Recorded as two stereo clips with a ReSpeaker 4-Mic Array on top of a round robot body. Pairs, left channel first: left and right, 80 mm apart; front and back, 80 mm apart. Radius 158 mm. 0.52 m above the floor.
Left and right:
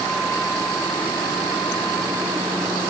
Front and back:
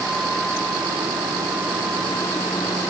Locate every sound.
Only background noise.